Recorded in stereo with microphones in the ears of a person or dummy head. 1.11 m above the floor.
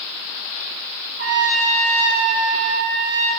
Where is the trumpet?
55° right (ahead or behind), 1.8 m.